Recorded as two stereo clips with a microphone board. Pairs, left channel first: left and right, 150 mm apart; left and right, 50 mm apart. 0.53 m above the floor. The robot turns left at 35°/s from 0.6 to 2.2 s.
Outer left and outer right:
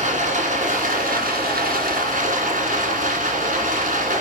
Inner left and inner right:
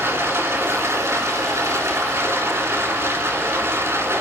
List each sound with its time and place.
0.0 s running water: 55° right, 2.5 m; by 4.2 s 110° right, 2.5 m